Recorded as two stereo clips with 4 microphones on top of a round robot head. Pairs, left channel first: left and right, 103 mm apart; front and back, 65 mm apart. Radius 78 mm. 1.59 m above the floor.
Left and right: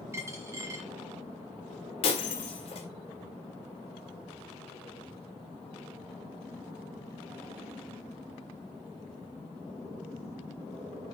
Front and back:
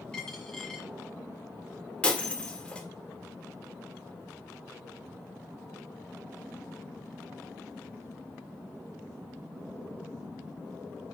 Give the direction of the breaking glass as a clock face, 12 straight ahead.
10 o'clock.